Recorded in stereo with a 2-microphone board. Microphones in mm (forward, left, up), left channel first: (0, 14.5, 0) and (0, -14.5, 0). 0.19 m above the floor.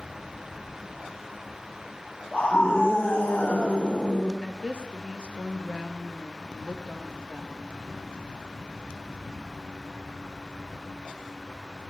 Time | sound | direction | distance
2.3 | a scream | 25° left (ahead or behind) | 5 m
4.4 | a woman speaking | 40° right (ahead or behind) | 3 m